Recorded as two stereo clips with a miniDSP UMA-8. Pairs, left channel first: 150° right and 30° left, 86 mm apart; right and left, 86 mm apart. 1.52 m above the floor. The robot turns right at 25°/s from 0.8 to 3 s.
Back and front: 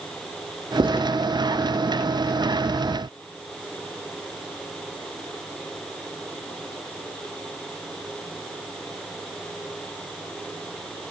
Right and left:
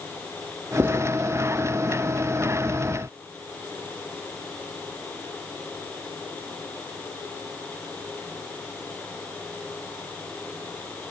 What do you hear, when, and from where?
0.8 s writing: 20° left, 3.5 m; by 1.0 s 25° left, 3.5 m